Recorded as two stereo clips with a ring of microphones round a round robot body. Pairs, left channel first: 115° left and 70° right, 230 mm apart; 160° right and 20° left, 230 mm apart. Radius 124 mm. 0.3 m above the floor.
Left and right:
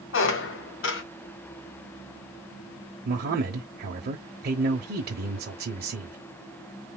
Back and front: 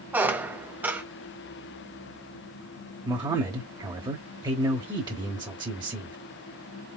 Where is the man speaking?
45° right, 1.2 m.